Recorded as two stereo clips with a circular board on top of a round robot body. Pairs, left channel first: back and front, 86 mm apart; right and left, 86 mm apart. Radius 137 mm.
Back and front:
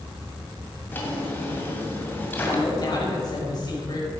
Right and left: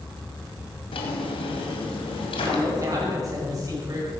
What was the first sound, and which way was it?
A drawer, 110° right.